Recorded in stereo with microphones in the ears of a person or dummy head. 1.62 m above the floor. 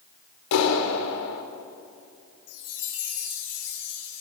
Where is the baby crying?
No baby crying in this recording.